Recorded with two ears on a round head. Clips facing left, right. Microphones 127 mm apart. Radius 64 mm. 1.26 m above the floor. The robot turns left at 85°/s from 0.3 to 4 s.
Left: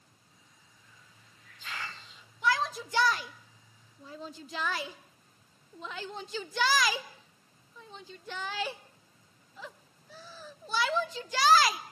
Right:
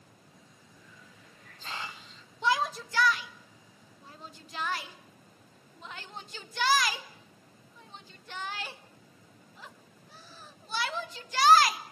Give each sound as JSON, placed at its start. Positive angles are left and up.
{"t": 0.8, "sound": "a hiss", "azimuth_deg": -70, "distance_m": 0.6}
{"t": 2.4, "sound": "a shout", "side_deg": -25, "distance_m": 1.3}